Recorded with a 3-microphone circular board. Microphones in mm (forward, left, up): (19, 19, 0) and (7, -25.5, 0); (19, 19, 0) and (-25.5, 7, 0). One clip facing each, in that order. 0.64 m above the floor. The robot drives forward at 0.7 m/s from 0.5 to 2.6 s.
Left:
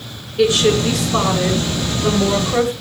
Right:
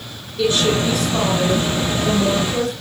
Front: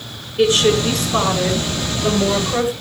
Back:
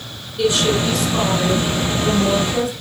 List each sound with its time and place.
0.4 s a woman speaking: 70° left, 9.5 m; by 2.7 s 75° left, 9 m